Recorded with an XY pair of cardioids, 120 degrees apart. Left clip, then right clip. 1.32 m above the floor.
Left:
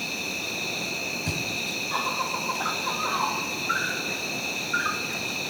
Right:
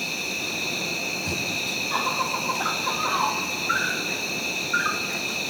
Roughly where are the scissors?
I don't hear scissors.